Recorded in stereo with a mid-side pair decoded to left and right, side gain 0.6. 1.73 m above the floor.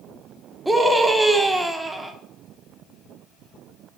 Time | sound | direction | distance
0.7 | a scream | 5° right | 1.4 m